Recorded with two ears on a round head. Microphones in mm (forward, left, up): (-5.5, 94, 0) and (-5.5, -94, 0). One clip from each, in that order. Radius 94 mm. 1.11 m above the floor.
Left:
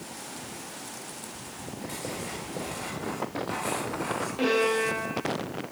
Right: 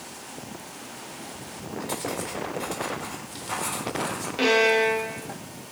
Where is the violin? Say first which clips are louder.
Right 6 dB; 55° right (ahead or behind), 1.8 m.